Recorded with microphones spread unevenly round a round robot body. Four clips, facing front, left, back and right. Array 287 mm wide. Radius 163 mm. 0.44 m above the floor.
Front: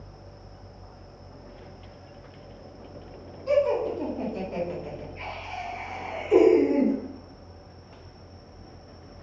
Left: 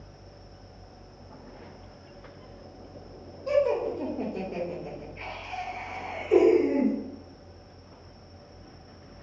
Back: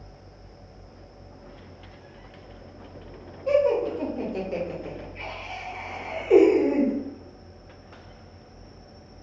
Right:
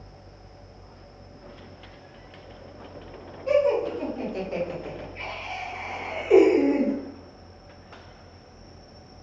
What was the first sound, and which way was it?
Laughter, 120° left.